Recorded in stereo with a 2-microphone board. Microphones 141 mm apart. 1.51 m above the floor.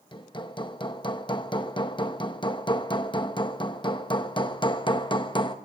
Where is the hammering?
35° left (ahead or behind), 0.8 m.